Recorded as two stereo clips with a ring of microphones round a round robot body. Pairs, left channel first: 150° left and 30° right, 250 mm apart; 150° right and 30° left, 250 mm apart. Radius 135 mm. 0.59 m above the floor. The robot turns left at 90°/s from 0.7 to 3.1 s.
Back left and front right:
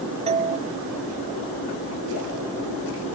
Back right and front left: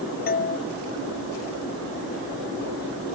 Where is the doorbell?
95° right.